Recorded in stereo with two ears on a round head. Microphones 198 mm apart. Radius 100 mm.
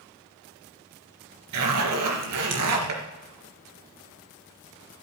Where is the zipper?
85° right, 3 m.